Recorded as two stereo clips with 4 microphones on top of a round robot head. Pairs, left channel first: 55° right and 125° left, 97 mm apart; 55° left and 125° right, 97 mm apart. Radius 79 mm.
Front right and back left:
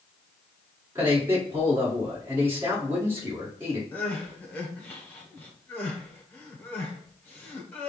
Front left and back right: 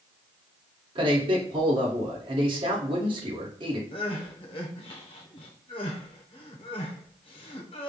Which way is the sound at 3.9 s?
20° left.